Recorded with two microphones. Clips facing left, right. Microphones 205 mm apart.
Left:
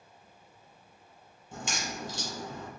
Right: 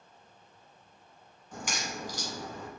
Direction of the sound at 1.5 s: 25° left (ahead or behind).